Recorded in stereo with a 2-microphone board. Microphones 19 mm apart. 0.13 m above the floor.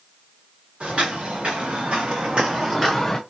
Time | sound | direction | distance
0.8 | footsteps | 85° right | 2.5 m